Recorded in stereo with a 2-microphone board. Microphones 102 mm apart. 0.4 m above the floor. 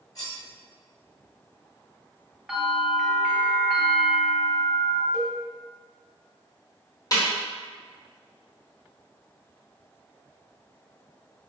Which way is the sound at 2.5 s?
5° right (ahead or behind).